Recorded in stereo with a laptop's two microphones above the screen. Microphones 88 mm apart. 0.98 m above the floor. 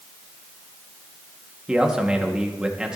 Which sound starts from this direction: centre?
A man speaking, at 1.7 s.